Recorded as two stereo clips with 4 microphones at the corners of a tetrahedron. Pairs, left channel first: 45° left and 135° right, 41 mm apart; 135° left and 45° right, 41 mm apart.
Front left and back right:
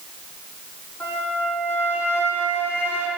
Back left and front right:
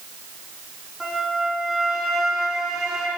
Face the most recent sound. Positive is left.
turn(degrees=40)